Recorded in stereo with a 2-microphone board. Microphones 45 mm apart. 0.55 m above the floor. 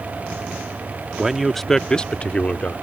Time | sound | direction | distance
1.2 | a man speaking | 10° right (ahead or behind) | ?